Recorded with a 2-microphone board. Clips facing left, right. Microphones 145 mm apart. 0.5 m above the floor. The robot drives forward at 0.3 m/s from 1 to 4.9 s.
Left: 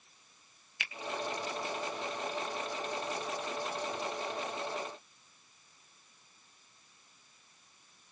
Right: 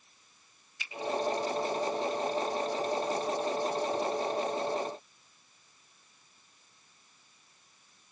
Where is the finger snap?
70° left (ahead or behind), 1.8 m.